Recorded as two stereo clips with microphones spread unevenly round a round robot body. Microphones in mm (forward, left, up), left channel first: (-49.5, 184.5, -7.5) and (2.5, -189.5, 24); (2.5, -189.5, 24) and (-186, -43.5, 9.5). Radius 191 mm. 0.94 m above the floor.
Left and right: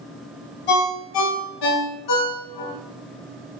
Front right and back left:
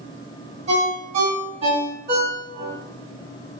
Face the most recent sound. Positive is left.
turn(degrees=70)